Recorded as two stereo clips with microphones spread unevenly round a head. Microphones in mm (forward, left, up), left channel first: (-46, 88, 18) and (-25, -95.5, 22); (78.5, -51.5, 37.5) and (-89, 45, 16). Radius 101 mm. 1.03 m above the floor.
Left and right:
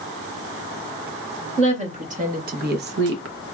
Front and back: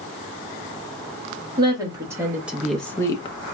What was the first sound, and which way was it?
A woman speaking, 140° right.